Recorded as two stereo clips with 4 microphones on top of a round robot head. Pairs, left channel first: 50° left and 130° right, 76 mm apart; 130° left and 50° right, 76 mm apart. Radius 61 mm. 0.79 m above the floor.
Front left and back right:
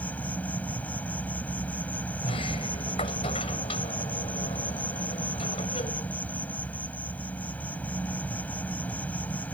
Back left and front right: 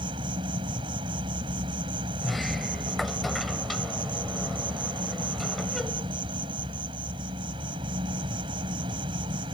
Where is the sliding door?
45° left.